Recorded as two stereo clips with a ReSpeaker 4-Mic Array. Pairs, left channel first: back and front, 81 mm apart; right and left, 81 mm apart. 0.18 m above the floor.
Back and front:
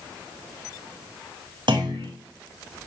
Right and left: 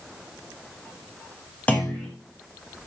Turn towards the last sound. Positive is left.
turn(degrees=-15)